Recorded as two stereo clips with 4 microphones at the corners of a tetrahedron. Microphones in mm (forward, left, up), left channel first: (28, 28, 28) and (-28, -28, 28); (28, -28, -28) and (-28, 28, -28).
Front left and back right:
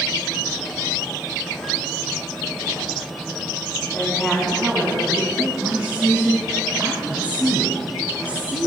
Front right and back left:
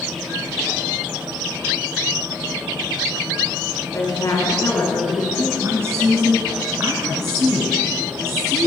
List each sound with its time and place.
3.9 s a woman speaking: 20° right, 1.7 m; by 5.5 s 90° right, 2 m
5.6 s a woman speaking: 165° left, 1.3 m